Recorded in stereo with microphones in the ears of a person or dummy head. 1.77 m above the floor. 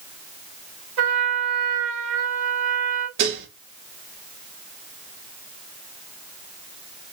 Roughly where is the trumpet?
Right.